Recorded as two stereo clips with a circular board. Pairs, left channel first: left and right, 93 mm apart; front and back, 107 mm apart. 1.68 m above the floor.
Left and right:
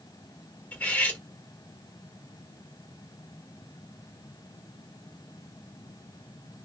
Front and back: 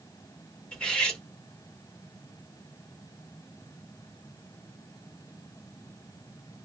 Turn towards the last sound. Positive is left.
turn(degrees=65)